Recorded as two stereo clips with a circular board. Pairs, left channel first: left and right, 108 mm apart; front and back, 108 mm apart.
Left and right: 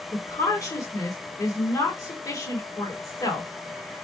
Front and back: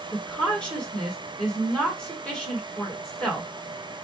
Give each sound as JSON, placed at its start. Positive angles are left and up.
{"t": 0.1, "sound": "a woman speaking", "azimuth_deg": 75, "distance_m": 1.6}